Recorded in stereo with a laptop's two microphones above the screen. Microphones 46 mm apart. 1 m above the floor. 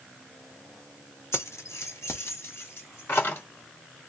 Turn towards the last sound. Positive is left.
turn(degrees=55)  # may be behind; listen again after turning